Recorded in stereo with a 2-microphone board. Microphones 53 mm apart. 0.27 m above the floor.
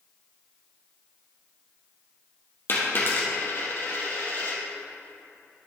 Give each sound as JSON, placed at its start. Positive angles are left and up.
{"t": 2.7, "sound": "a dropped coin", "side_deg": 40, "distance_m": 2.5}